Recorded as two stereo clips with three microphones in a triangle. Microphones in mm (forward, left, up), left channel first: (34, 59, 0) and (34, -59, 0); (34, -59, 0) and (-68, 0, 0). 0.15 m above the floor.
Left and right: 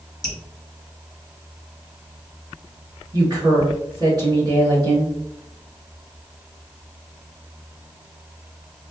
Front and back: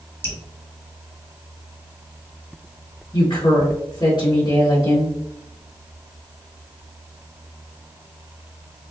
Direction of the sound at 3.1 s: 55° right.